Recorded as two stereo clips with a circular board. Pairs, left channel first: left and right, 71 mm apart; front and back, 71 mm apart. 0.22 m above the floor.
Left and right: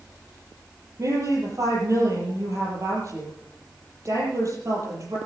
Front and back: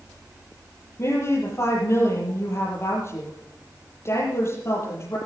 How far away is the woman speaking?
About 7.5 m.